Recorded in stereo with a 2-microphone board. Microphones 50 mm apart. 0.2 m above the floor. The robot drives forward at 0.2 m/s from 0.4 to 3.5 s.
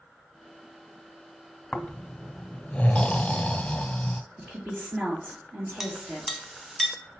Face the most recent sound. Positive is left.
turn(degrees=0)  # may be behind; listen again after turning